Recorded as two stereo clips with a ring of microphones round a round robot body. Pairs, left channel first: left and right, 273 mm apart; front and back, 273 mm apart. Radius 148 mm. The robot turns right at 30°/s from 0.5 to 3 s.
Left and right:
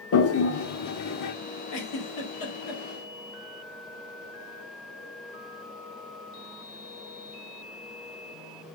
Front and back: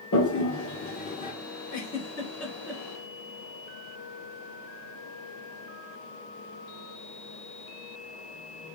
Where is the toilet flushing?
50° left, 1.9 m; by 1.3 s 75° left, 1.9 m.